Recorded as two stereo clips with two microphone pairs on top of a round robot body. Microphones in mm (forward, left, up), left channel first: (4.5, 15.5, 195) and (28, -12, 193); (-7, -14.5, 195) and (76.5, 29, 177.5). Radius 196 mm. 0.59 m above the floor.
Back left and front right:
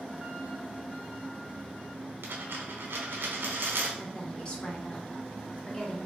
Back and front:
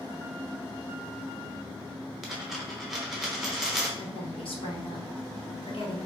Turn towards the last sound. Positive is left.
turn(degrees=-165)